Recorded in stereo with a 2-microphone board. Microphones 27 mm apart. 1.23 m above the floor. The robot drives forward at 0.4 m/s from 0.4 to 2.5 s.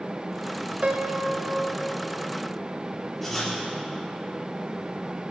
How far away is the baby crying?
No baby crying in this recording.